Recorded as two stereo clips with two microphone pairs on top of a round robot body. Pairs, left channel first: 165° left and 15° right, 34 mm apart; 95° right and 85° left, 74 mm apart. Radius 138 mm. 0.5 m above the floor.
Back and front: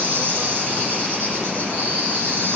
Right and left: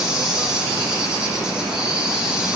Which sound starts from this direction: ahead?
An insect, at 0.0 s.